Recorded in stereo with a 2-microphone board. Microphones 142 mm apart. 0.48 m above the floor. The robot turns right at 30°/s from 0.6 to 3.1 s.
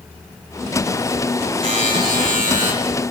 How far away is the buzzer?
About 9 m.